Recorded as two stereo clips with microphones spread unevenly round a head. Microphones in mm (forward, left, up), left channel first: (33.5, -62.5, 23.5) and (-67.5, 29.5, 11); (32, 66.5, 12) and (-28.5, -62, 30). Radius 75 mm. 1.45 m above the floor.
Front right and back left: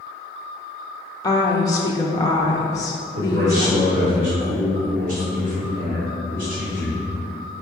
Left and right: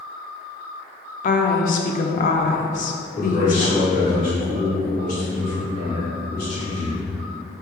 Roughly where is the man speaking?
Left.